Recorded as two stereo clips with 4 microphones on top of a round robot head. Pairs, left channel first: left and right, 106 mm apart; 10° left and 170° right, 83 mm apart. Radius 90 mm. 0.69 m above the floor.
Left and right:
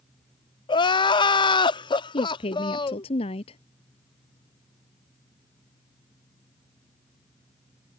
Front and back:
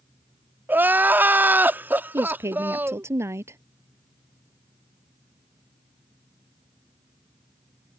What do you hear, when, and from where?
0.7 s crying: 125° left
2.1 s a woman speaking: 135° left